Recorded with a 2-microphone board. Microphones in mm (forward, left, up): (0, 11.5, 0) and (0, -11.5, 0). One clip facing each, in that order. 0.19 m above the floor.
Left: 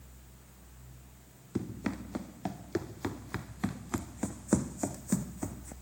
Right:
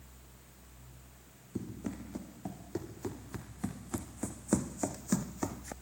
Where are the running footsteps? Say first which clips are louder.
Left 4 dB; 55° left (ahead or behind), 2.5 m; by 5.7 s 55° right (ahead or behind), 0.8 m.